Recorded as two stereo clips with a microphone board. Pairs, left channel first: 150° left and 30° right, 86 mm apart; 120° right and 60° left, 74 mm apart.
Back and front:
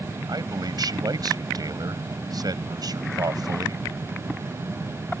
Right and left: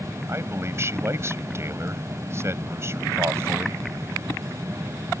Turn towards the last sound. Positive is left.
turn(degrees=10)